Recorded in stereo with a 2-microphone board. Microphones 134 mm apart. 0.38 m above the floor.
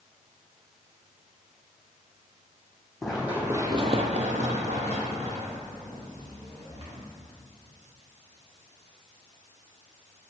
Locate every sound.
3.0 s running footsteps: centre (ahead or behind), 1.2 m; by 7.0 s 40° right (ahead or behind), 3.5 m